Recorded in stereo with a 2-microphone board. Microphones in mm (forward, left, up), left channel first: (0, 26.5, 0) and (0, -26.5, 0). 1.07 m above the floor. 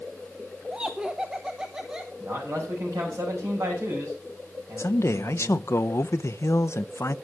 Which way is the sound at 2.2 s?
65° right (ahead or behind).